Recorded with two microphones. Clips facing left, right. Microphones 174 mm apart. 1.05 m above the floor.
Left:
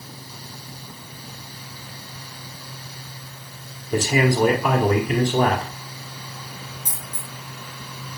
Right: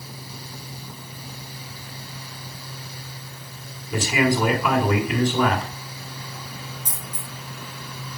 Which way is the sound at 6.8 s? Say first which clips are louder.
Right 1 dB; 75° left (ahead or behind).